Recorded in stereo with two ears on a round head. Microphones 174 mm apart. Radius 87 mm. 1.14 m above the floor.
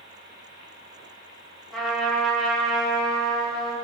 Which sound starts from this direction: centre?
A trumpet, at 1.7 s.